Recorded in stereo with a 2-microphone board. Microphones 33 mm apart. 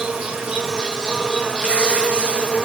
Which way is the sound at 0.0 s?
20° right (ahead or behind).